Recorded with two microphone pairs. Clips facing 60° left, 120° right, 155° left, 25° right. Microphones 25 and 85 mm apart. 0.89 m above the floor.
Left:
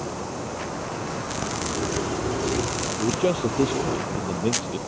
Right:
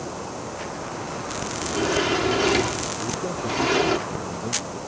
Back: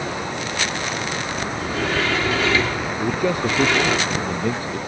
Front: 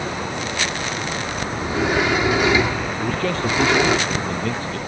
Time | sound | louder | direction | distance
1.6 | a sliding door | right 6 dB, front 4 dB | 95° right | ?
3.0 | a man speaking | left 5 dB, back 3 dB | 85° left | ?